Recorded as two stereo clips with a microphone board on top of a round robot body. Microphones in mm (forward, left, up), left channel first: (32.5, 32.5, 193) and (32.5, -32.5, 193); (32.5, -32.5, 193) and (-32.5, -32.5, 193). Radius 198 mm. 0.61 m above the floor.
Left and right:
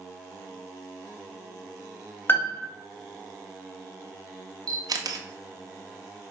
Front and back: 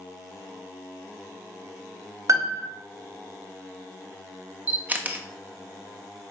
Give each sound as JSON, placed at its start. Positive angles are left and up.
{"t": 2.3, "sound": "a piano", "azimuth_deg": 145, "distance_m": 0.8}
{"t": 4.7, "sound": "a camera shutter", "azimuth_deg": -115, "distance_m": 1.0}